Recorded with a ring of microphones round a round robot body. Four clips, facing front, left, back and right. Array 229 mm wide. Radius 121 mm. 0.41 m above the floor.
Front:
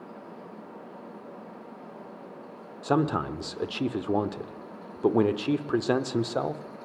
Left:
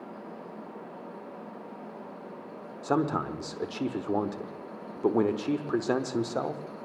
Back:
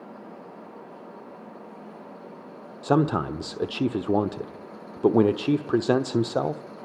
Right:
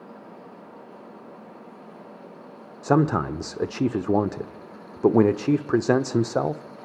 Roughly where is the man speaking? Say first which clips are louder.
Right 6 dB, back 3 dB; behind right.